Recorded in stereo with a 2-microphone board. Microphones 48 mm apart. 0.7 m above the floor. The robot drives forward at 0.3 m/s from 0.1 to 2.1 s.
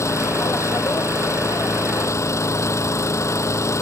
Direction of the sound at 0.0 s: 80° left.